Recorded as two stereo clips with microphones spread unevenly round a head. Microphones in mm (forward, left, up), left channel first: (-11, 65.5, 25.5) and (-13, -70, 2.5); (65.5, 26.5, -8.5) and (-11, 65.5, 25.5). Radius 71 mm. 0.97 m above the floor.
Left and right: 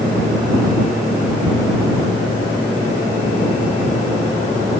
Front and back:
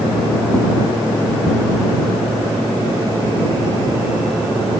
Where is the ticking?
125° right.